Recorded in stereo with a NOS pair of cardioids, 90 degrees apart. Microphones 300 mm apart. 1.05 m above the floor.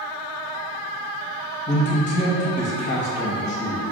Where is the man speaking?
25° left, 0.8 m.